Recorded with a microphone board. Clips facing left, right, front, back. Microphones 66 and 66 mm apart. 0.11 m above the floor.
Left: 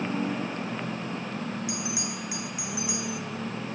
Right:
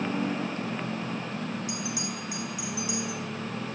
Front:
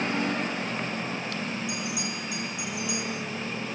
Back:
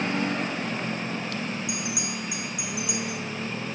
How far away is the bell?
About 3 m.